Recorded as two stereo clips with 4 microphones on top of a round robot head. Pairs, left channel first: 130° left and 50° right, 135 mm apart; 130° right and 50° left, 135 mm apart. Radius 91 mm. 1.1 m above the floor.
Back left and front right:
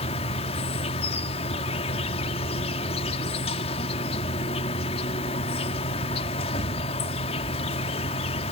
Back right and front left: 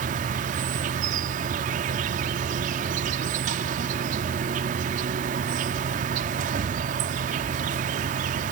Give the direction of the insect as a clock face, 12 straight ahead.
9 o'clock.